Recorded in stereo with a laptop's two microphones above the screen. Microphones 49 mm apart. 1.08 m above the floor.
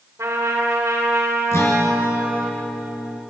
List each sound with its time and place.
0.2 s a trumpet: 85° right, 3.5 m
1.5 s a guitar: 65° left (ahead or behind), 3 m